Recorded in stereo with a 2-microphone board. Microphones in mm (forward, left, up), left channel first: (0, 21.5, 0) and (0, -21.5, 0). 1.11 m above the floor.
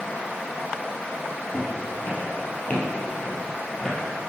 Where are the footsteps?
55° left (ahead or behind), 1.9 m; by 4.0 s 15° left (ahead or behind), 1.9 m.